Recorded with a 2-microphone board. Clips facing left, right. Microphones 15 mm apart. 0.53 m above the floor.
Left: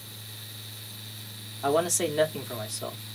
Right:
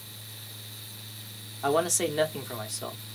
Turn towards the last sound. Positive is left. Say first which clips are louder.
# even
turn(degrees=-5)  # may be behind; listen again after turning